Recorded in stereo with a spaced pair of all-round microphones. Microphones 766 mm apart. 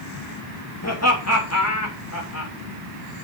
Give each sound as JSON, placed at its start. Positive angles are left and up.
{"t": 0.8, "sound": "laughter", "side_deg": 20, "distance_m": 3.0}